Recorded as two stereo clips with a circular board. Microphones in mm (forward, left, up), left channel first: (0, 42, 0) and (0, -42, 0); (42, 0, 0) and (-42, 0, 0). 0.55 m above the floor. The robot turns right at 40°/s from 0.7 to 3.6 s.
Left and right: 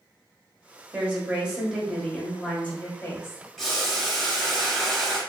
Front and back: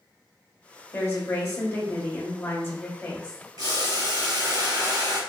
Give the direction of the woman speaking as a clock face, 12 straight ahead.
1 o'clock.